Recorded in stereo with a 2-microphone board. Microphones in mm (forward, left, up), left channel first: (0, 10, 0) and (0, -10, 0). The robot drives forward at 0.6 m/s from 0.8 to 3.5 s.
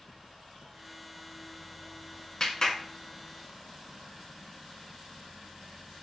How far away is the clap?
About 1.5 m.